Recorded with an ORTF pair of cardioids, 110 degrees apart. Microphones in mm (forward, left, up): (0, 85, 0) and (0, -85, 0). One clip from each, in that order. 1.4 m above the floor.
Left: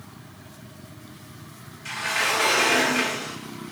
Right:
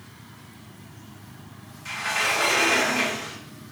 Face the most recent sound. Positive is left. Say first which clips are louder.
# even
turn(degrees=5)